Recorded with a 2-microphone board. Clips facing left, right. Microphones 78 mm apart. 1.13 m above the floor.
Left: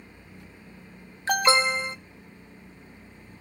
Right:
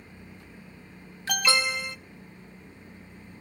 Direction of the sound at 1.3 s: 30° left (ahead or behind).